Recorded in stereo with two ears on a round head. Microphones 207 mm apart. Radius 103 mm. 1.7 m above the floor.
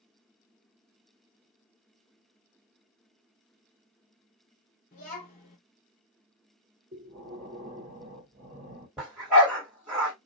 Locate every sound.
4.9 s a child speaking: 30° left (ahead or behind), 1.3 m
6.9 s breathing: 30° right (ahead or behind), 1.7 m
9.0 s a dog barking: centre (ahead or behind), 2 m